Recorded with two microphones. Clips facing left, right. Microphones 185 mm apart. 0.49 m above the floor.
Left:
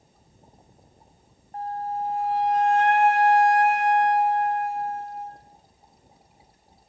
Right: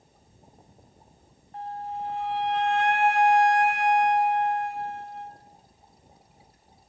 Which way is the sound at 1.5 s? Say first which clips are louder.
Left 5 dB; 45° left (ahead or behind).